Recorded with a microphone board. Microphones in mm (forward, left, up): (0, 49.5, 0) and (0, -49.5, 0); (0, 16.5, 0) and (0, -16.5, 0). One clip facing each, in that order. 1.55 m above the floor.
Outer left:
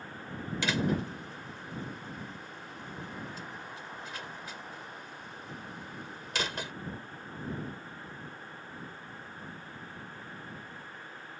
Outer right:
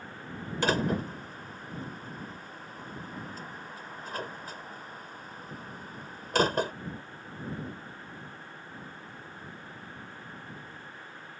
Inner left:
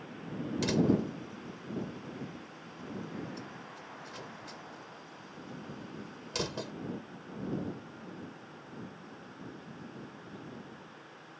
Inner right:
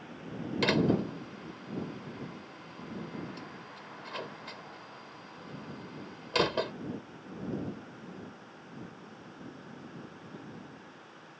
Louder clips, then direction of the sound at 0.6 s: Outer right 3 dB, inner right 1 dB; 45° right (ahead or behind).